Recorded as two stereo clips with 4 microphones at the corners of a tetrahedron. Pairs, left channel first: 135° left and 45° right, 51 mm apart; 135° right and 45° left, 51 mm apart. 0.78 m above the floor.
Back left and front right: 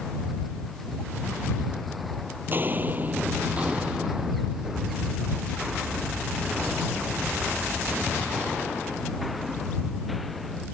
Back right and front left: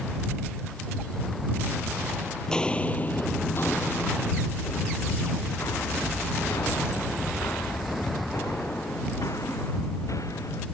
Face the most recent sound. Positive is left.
turn(degrees=-135)